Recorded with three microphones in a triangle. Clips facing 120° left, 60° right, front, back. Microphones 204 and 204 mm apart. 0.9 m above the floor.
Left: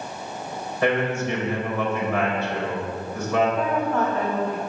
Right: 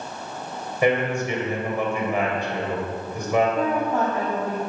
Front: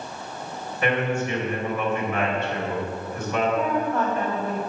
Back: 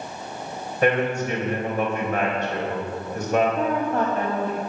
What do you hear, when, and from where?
0.8 s a man speaking: 135° right, 4 m
3.6 s a woman speaking: 130° right, 2.5 m